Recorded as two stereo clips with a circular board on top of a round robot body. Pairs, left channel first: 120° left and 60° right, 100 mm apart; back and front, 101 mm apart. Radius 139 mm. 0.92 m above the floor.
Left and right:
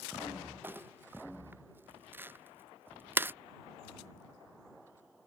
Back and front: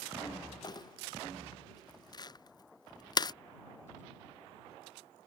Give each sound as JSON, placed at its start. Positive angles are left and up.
{"t": 0.6, "sound": "crumpling", "azimuth_deg": -130}